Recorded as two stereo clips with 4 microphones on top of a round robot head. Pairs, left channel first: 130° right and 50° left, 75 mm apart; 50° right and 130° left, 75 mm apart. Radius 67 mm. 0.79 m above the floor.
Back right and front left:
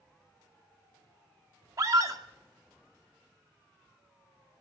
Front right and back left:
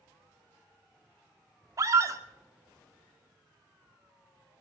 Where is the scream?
85° left, 2.5 m.